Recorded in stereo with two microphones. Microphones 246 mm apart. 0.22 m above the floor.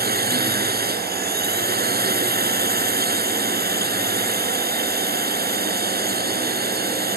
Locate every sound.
0.0 s a drone: 40° right (ahead or behind)